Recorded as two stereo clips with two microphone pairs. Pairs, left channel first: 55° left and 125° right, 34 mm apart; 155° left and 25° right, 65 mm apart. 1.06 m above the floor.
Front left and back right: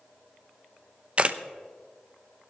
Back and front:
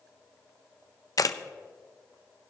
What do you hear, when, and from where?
1.2 s a camera shutter: straight behind, 0.7 m